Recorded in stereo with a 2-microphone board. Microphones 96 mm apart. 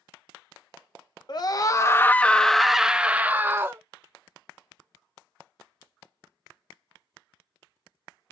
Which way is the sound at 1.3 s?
50° left (ahead or behind).